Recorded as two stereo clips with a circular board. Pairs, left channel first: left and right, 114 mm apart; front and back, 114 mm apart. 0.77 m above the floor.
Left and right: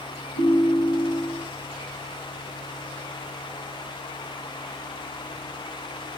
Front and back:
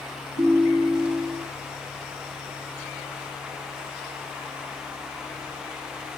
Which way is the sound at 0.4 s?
65° left.